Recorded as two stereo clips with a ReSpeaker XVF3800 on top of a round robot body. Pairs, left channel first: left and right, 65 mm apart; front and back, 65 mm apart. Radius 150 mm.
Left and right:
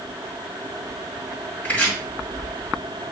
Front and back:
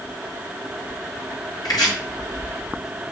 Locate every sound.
1.6 s chopping: 20° left, 4 m